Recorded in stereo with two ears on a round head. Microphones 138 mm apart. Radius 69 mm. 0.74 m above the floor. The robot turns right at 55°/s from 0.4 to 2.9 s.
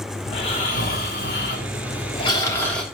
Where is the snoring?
45° left, 3.5 m; by 2.8 s straight behind, 3.5 m.